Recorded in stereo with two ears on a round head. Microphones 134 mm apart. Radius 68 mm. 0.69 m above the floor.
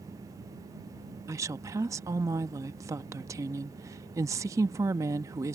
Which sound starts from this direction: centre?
A woman speaking, at 1.3 s.